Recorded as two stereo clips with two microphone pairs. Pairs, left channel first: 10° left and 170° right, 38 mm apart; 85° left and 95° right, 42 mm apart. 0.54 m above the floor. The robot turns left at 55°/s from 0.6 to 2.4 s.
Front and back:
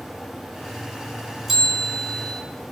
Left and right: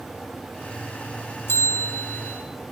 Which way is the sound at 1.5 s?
105° left.